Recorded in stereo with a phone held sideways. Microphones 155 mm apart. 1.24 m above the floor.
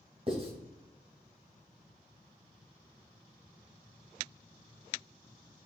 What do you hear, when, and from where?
0.3 s writing: 35° right (ahead or behind), 2 m